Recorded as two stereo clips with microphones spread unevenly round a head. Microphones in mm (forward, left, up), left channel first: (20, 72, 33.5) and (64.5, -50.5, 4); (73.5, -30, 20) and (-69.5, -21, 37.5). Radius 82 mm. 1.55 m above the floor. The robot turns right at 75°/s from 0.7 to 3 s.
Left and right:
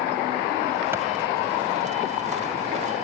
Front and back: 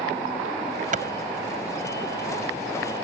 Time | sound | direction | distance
0.9 | a clap | 150° right | ?